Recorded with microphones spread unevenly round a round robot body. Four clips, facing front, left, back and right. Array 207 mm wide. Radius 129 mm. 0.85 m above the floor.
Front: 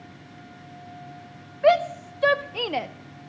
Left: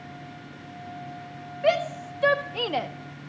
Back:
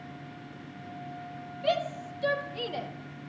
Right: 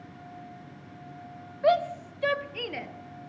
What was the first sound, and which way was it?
A shout, 5° left.